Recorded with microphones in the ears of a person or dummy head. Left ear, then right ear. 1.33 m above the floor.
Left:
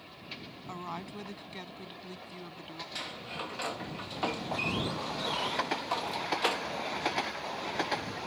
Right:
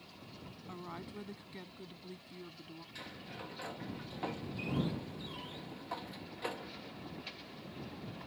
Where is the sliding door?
35° left (ahead or behind).